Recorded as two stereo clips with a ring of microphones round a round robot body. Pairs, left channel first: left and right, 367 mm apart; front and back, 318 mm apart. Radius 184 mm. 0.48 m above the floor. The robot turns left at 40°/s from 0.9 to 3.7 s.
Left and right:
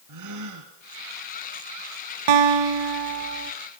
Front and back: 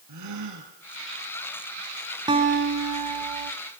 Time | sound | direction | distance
0.1 | a gasp | 135° right | 4 m
2.3 | a guitar | 100° right | 1.5 m